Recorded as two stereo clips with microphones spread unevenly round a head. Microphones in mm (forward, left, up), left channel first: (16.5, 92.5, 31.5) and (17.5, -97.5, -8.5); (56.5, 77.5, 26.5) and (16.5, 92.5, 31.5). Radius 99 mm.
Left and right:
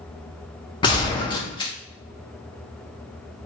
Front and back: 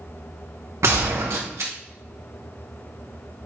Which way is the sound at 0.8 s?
165° left.